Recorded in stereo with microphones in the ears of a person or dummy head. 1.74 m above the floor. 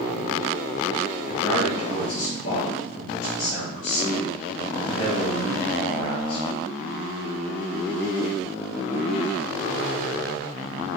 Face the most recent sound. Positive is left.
turn(degrees=60)  # may be behind; listen again after turning